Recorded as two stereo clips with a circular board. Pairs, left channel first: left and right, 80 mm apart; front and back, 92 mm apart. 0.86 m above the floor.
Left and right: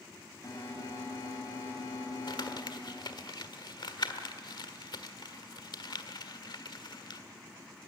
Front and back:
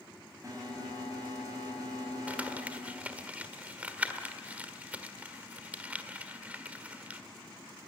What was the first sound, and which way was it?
An alarm, 125° left.